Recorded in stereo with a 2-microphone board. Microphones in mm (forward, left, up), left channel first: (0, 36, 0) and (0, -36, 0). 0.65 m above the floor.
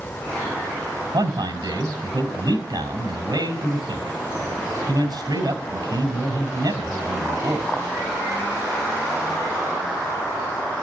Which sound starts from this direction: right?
A man speaking, at 1.1 s.